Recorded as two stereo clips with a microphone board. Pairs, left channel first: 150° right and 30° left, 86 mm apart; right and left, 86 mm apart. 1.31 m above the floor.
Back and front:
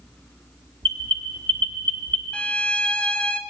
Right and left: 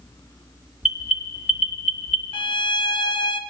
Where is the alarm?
10° left, 1.2 m.